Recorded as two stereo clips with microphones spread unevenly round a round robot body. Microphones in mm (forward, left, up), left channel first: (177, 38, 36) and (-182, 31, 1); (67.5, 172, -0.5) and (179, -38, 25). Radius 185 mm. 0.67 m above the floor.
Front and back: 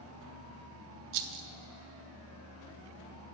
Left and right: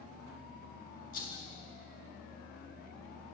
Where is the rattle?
Straight behind, 0.7 m.